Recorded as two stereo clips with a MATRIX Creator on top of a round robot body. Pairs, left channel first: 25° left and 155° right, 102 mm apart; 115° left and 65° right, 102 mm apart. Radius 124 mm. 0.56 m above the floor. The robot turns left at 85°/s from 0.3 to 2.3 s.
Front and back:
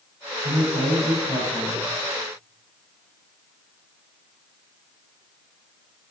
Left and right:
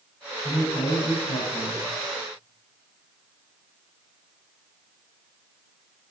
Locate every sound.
0.4 s a man speaking: 165° right, 4.5 m; by 1.8 s 80° left, 4.5 m